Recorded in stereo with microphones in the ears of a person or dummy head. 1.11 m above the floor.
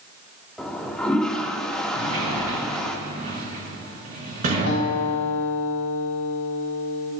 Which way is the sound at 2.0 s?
50° right (ahead or behind).